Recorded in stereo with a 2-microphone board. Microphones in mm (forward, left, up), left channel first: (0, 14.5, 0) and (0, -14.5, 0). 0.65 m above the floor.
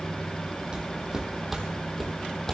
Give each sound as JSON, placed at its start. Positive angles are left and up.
{"t": 0.7, "sound": "footsteps", "side_deg": -30, "distance_m": 1.8}